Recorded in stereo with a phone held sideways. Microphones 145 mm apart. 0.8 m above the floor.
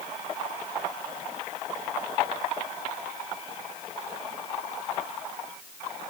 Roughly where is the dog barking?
I don't hear a dog barking.